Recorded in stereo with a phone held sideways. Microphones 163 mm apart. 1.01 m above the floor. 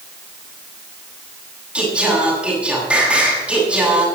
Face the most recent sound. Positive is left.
turn(degrees=-5)  # may be behind; listen again after turning